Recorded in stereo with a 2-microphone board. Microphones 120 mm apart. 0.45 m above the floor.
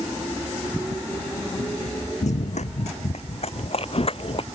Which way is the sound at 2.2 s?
75° left (ahead or behind).